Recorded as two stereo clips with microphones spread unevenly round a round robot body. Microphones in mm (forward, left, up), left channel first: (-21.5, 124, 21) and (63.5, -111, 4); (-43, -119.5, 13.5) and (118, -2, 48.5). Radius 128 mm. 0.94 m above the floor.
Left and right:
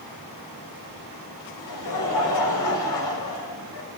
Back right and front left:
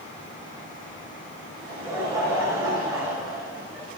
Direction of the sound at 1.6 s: 115° left.